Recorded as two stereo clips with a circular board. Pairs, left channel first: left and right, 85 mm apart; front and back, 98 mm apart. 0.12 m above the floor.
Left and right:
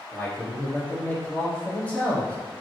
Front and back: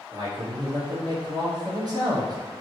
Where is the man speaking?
155° left, 1.7 m.